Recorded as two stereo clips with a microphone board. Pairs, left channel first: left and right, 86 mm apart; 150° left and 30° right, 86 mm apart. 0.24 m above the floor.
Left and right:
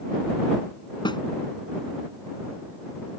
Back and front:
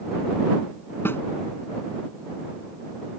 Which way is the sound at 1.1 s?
90° left.